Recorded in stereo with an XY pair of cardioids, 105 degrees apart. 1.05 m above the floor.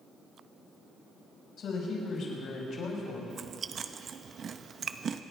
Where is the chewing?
50° right, 0.7 m.